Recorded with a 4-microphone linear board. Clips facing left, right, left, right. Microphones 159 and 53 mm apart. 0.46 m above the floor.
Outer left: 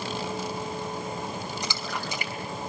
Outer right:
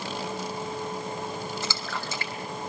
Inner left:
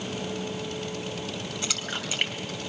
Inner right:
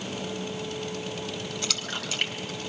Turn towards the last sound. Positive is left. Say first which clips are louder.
# outer left 1 dB, even
turn(degrees=15)  # may be behind; listen again after turning